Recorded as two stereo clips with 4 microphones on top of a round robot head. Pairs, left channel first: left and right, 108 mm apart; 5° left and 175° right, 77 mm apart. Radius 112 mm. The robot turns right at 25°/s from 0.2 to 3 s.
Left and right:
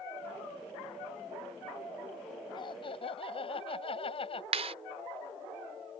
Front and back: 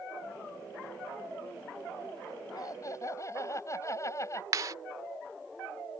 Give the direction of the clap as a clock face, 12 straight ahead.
4 o'clock.